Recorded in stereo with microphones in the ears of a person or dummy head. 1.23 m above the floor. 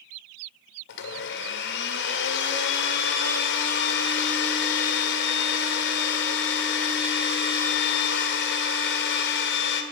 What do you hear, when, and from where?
0.9 s a blender: 65° left (ahead or behind), 1.6 m